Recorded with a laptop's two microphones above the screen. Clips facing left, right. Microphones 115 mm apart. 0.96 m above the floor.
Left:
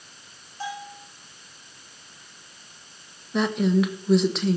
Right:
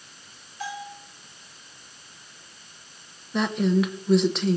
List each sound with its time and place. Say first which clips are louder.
0.6 s a bell: left 1 dB; 35° left (ahead or behind), 5 m
3.3 s a woman speaking: left 1 dB; centre (ahead or behind), 1.1 m